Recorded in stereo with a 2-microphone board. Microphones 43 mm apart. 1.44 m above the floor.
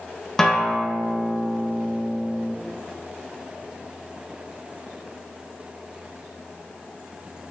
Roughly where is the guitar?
Centre.